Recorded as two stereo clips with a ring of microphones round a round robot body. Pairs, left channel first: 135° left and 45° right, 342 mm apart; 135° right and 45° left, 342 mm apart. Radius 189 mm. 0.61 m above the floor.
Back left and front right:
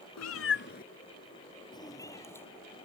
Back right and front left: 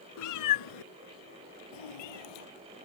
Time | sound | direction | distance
0.2 | a cat meowing | straight behind | ?